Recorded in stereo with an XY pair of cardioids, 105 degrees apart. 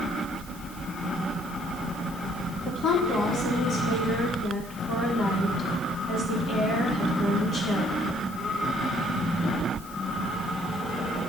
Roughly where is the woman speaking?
Ahead left.